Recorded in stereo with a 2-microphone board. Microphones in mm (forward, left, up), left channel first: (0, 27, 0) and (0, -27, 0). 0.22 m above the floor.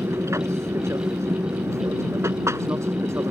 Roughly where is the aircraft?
Right.